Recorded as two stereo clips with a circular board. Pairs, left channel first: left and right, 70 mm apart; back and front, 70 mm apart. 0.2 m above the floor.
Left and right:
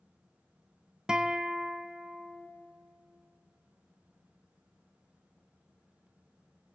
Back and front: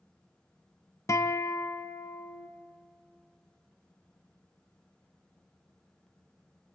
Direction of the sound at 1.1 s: 165° right.